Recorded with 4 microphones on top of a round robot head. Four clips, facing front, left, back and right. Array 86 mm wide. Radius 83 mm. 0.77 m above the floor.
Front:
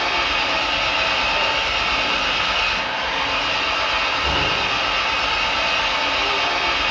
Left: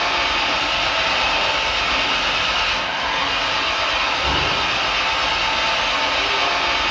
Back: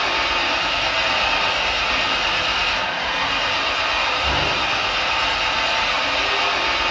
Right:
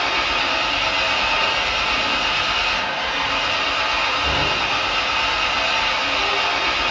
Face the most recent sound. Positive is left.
turn(degrees=80)